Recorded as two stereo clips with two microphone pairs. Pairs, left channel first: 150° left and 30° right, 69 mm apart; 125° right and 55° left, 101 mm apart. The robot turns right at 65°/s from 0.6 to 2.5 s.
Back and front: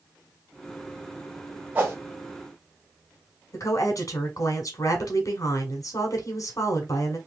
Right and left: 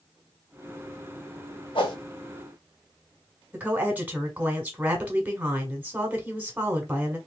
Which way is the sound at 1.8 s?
100° right.